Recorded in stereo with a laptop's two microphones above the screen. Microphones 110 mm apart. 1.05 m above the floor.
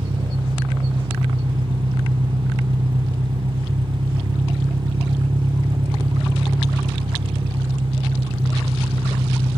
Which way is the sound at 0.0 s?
50° right (ahead or behind).